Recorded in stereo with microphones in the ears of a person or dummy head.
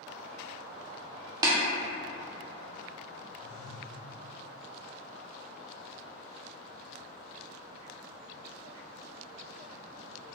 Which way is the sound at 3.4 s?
60° left (ahead or behind).